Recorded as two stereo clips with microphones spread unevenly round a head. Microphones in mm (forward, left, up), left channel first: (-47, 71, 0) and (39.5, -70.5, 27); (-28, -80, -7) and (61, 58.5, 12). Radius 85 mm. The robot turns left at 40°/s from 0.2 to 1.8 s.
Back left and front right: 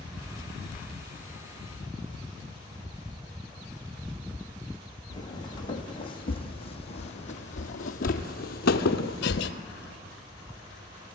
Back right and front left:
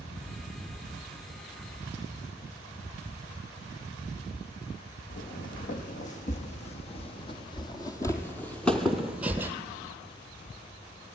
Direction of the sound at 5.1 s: 170° right.